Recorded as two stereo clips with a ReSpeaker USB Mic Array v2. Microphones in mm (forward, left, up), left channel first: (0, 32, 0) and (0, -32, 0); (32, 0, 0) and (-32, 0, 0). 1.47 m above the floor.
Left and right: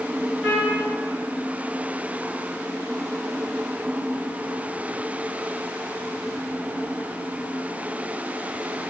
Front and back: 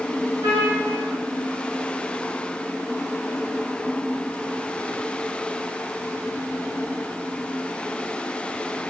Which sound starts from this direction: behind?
A trumpet, at 0.4 s.